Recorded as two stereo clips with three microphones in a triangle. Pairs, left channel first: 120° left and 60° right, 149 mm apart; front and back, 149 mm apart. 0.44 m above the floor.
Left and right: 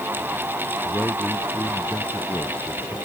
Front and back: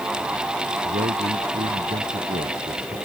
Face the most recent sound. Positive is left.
turn(degrees=-160)